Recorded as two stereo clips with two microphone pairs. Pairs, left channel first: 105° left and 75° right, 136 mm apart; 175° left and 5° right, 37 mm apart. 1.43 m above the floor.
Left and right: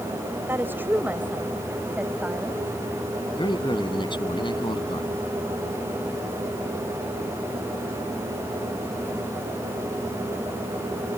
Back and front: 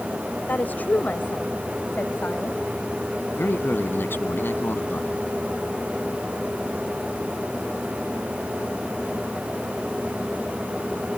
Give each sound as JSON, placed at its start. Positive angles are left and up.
{"t": 0.5, "sound": "a woman speaking", "azimuth_deg": -150}
{"t": 3.3, "sound": "a man speaking", "azimuth_deg": 160}